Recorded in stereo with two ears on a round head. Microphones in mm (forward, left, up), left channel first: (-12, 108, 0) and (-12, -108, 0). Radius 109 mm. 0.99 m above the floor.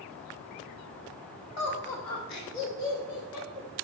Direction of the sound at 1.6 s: 40° left (ahead or behind).